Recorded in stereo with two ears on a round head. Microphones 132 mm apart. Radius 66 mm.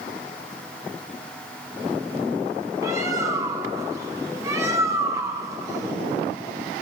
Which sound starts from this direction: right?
A bird, at 2.8 s.